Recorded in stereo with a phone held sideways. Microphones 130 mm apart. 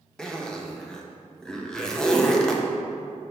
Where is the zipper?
5° left (ahead or behind), 0.6 m.